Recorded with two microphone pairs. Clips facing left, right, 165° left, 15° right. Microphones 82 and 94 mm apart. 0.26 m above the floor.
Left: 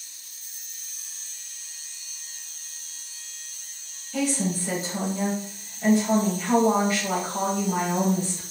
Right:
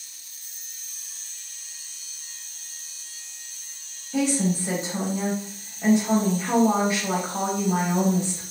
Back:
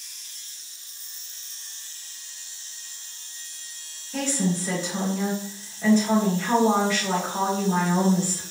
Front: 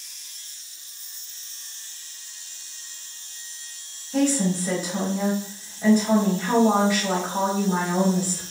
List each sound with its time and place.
4.1 s a woman speaking: 70° right, 0.9 m